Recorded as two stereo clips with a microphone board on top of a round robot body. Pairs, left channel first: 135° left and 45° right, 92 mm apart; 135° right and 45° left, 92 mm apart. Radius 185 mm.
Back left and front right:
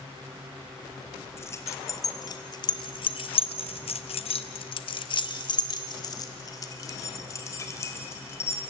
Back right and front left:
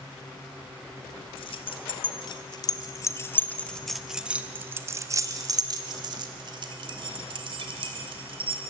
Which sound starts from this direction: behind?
Keys jangling, at 1.4 s.